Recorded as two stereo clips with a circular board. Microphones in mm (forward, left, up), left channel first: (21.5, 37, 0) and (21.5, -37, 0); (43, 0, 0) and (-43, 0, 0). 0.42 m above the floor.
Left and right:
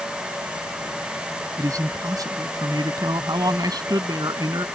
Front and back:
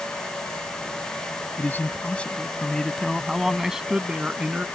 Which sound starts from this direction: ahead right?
A man speaking, at 1.6 s.